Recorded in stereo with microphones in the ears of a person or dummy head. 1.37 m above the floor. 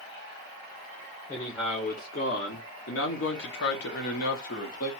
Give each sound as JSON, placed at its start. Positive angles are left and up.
{"t": 1.3, "sound": "a man speaking", "side_deg": 30, "distance_m": 0.9}